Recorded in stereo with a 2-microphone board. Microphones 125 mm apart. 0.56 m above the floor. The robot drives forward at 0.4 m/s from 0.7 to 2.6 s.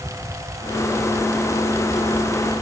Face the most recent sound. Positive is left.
No sound to turn to.